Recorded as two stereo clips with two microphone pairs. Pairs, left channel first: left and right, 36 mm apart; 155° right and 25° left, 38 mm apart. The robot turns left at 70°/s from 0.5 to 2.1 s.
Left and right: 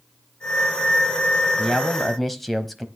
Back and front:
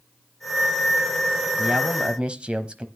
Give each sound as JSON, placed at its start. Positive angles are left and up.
{"t": 1.6, "sound": "a man speaking", "azimuth_deg": 45, "distance_m": 1.1}